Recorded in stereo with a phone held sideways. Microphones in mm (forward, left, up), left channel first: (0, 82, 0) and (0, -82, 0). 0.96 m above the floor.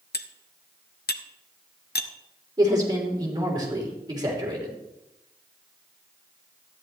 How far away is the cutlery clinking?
About 0.6 m.